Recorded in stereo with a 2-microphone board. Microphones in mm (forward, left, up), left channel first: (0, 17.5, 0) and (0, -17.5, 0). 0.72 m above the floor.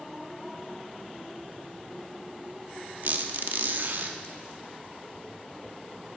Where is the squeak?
60° right (ahead or behind), 0.7 m.